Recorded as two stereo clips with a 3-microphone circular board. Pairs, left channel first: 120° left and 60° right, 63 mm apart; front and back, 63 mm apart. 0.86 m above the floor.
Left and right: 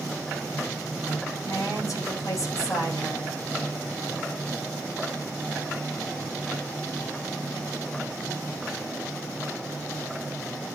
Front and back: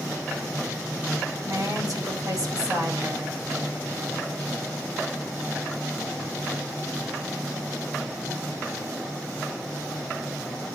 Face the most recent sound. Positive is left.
turn(degrees=155)